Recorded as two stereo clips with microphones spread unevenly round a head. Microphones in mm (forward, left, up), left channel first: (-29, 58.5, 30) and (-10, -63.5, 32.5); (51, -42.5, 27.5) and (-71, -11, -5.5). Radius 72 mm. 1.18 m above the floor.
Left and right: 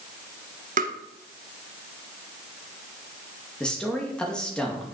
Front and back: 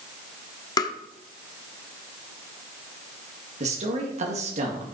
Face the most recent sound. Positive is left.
turn(degrees=180)